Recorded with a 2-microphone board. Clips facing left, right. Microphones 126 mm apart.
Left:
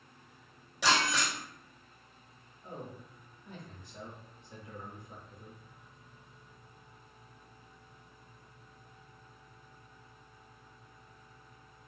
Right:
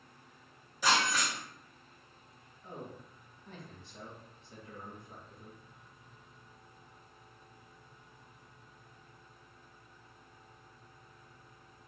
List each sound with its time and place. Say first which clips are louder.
0.8 s breaking glass: left 1 dB; 85° left, 1.7 m
2.6 s a man speaking: left 1 dB; 15° left (ahead or behind), 1.6 m